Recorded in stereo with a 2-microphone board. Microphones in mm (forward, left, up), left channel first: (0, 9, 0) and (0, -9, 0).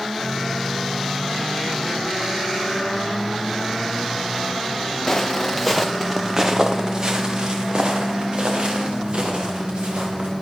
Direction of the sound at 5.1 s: 15° left (ahead or behind).